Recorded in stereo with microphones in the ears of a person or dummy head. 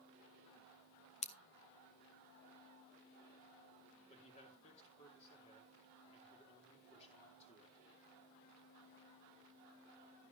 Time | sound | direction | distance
1.2 | scissors | 35° left (ahead or behind) | 0.7 m
4.1 | a man speaking | 35° left (ahead or behind) | 3 m